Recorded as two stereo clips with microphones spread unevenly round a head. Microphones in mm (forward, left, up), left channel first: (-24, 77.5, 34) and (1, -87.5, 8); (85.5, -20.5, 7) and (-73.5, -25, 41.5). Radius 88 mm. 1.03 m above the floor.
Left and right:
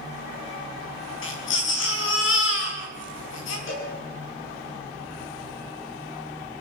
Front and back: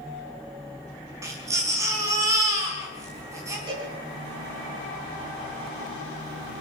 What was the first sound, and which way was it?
A baby crying, 110° left.